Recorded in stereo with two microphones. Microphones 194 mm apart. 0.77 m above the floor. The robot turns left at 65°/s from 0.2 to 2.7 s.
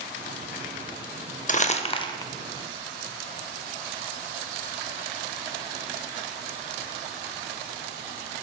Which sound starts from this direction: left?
Crumpling, at 1.5 s.